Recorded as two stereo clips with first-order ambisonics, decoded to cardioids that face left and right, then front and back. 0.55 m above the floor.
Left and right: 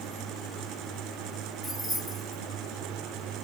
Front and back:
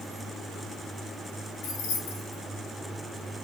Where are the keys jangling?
5° right, 2 m.